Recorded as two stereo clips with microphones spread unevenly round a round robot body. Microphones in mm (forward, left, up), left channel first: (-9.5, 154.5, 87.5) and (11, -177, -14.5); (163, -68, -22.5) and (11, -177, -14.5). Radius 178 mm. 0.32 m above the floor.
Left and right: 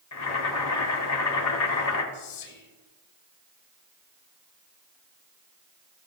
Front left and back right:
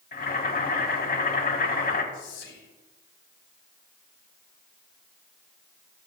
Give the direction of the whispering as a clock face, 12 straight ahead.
10 o'clock.